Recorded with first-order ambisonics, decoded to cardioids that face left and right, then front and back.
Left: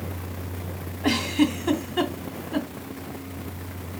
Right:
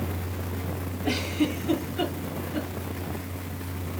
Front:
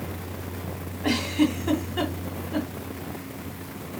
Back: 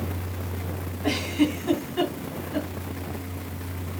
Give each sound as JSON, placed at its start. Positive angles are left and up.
{"t": 1.0, "sound": "a giggle", "azimuth_deg": 75, "distance_m": 2.5}